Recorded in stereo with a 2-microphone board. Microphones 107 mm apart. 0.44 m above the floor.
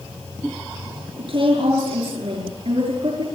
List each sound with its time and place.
1.2 s a woman speaking: 60° right (ahead or behind), 7 m